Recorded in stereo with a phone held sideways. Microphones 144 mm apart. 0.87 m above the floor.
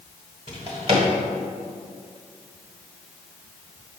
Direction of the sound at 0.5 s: 45° right (ahead or behind).